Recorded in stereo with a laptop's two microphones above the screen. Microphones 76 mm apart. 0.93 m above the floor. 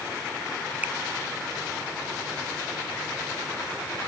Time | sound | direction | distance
0.8 | a finger snap | 20° right (ahead or behind) | ?